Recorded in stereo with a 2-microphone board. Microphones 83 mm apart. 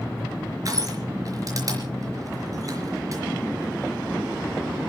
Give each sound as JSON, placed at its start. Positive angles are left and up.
{"t": 0.7, "sound": "crushing", "side_deg": -45, "distance_m": 4.0}